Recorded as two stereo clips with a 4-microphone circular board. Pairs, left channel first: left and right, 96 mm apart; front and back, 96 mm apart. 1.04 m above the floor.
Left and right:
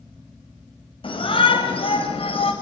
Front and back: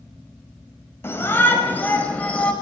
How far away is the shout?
About 6 m.